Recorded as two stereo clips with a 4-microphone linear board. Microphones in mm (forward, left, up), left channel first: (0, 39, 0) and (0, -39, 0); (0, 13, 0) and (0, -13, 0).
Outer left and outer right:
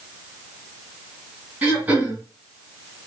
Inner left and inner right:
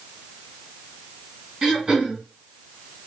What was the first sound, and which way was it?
Throat clearing, 20° right (ahead or behind).